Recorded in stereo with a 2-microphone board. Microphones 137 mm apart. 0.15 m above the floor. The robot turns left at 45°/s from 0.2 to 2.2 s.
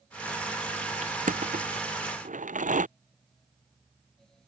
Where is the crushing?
55° right (ahead or behind); by 2.9 s 70° right (ahead or behind).